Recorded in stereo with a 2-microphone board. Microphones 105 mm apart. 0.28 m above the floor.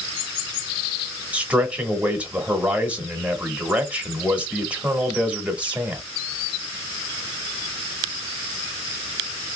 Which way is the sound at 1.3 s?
15° right (ahead or behind).